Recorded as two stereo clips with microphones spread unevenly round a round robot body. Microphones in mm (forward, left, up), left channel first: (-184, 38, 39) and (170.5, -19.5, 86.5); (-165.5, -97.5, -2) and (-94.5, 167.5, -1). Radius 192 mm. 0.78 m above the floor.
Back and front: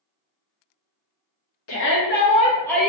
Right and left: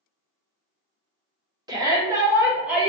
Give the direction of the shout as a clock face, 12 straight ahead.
7 o'clock.